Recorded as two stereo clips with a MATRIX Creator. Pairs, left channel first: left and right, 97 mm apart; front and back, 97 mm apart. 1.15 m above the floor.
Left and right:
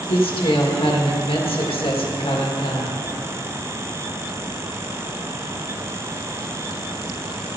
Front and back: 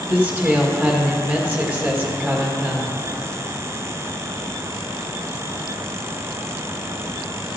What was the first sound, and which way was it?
A woman speaking, 110° left.